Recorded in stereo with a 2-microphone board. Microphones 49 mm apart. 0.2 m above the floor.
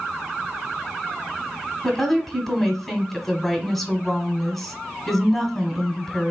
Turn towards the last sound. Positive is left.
turn(degrees=5)  # may be behind; listen again after turning